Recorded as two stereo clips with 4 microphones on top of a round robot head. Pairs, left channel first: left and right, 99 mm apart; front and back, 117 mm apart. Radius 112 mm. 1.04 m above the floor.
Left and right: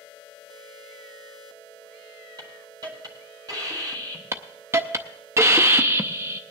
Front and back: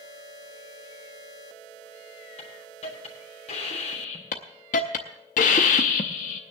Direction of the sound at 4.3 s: 30° right.